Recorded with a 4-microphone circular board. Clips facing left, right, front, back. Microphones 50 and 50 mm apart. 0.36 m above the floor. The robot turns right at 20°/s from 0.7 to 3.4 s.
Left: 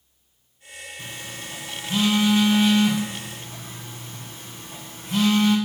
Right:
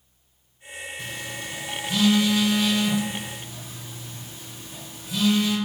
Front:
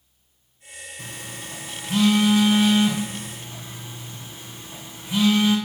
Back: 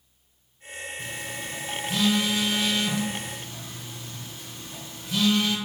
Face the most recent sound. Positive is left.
turn(degrees=65)